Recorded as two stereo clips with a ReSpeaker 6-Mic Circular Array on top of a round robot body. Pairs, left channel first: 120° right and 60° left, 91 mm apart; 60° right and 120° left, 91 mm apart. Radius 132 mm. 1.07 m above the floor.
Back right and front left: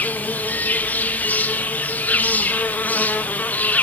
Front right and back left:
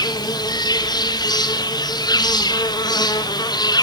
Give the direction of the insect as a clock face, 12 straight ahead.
2 o'clock.